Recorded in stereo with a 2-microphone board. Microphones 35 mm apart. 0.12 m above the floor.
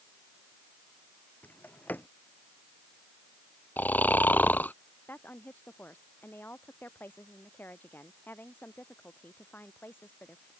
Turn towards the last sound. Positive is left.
turn(degrees=80)